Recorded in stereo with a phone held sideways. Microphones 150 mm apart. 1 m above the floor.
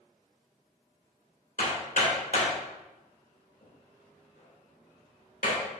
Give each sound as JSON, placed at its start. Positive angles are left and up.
{"t": 1.6, "sound": "hammering", "side_deg": 70, "distance_m": 3.0}